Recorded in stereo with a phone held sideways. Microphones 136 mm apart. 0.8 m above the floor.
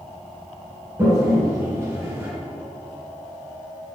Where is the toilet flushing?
20° right (ahead or behind), 2.0 m.